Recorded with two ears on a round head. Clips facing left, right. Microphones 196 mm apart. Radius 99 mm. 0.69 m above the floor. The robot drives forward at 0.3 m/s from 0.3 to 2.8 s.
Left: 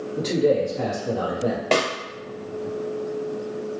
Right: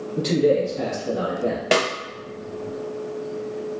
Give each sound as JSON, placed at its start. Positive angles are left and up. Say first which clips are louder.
{"t": 0.2, "sound": "a man speaking", "louder": "right 1 dB", "side_deg": -15, "distance_m": 1.2}
{"t": 1.7, "sound": "a snare drum", "louder": "right 1 dB", "side_deg": -10, "distance_m": 0.6}